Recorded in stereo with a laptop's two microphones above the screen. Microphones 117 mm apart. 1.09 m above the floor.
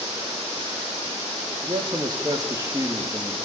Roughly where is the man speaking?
Right.